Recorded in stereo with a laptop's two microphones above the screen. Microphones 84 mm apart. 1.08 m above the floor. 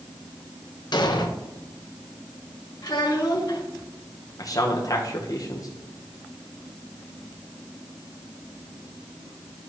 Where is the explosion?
60° left (ahead or behind), 0.8 m.